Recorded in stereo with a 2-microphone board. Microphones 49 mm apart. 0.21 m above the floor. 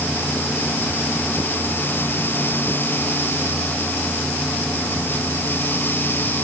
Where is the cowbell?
I don't hear a cowbell.